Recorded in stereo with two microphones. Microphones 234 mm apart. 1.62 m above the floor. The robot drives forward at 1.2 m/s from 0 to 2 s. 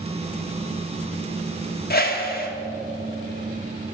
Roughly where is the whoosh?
Left.